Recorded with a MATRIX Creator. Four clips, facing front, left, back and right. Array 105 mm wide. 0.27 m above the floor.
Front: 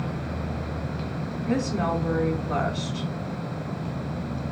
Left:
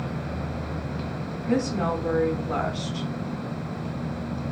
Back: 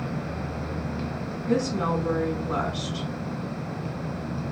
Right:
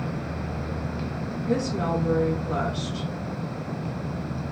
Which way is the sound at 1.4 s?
25° left.